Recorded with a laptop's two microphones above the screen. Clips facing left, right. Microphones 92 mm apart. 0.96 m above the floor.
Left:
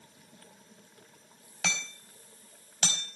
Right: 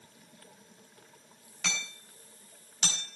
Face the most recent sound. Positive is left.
turn(degrees=75)  # may be behind; listen again after turning